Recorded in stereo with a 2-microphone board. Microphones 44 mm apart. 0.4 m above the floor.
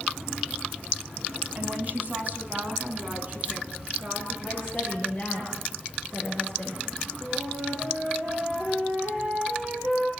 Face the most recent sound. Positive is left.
turn(degrees=-20)  # may be behind; listen again after turning